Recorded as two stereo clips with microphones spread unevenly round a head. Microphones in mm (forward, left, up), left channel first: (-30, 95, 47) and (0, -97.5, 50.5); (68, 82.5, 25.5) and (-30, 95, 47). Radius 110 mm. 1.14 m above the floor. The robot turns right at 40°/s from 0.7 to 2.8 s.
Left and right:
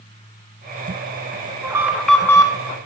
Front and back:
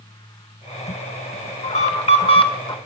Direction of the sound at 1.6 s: 10° right.